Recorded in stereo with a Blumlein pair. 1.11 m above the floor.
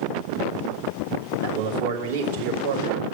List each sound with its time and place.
1.4 s a man speaking: 60° right, 2.5 m